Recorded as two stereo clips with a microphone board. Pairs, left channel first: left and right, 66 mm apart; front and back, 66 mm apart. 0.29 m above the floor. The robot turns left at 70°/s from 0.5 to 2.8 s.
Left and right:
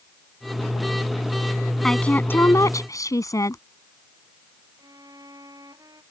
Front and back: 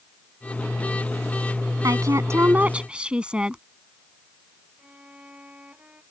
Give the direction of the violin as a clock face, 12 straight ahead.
4 o'clock.